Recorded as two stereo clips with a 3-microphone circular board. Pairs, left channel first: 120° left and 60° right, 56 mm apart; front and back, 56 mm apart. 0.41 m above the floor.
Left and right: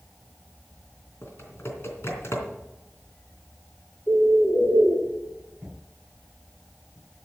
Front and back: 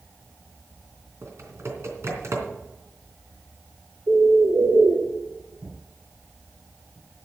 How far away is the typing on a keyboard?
About 3 m.